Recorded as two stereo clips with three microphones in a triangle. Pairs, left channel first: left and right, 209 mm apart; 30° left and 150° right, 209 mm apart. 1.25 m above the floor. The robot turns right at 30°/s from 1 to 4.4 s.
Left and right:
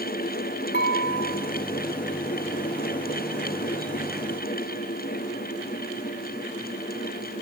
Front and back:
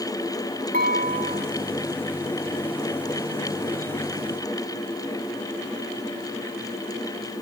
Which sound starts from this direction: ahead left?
Dishes clattering, at 0.7 s.